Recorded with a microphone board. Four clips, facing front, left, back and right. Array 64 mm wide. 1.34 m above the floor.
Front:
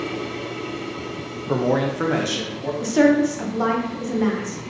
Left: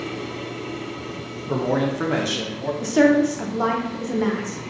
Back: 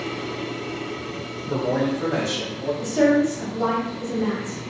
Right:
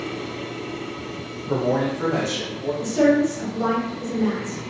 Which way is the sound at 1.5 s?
Straight ahead.